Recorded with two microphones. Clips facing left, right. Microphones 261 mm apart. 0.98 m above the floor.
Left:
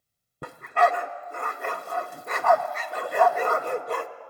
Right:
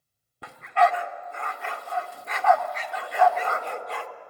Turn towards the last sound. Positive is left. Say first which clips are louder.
# even
turn(degrees=50)  # may be behind; listen again after turning